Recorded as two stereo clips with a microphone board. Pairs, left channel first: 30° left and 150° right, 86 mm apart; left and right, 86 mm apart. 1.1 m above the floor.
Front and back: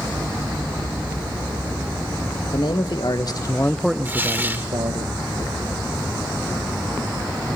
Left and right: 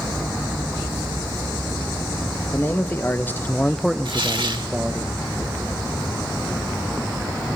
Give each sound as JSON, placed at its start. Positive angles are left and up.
{"t": 2.5, "sound": "a man speaking", "azimuth_deg": 30, "distance_m": 1.9}
{"t": 4.0, "sound": "tearing paper", "azimuth_deg": -85, "distance_m": 1.5}